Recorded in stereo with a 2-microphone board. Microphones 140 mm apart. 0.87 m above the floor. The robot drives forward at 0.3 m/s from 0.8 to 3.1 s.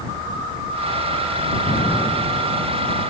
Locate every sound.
1.7 s an explosion: 60° left (ahead or behind), 1.7 m; by 2.6 s 50° left (ahead or behind), 1.8 m